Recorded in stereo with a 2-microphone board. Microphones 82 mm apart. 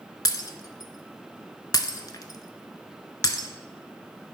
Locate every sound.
0.2 s breaking glass: 55° left (ahead or behind), 0.6 m